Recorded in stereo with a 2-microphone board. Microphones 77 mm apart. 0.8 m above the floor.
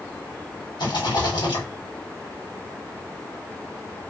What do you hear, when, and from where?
0.8 s a rattle: 75° left (ahead or behind), 1.4 m